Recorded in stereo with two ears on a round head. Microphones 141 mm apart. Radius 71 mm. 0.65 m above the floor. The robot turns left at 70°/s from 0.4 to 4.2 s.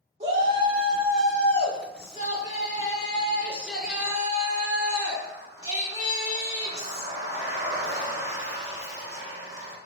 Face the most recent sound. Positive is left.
turn(degrees=-30)